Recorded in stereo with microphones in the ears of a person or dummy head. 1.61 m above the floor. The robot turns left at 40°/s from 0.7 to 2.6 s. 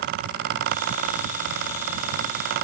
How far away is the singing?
No singing in this recording.